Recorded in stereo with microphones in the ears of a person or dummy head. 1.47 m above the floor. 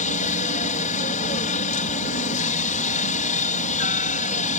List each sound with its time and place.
0.0 s a helicopter: 45° left (ahead or behind)